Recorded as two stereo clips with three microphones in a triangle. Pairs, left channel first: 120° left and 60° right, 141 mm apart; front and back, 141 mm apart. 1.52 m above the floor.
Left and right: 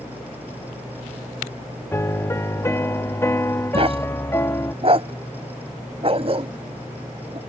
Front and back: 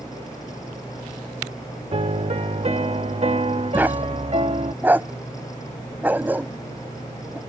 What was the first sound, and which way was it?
A piano, 175° right.